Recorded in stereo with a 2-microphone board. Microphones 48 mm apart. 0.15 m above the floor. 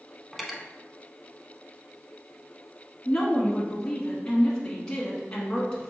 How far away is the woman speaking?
About 1.2 m.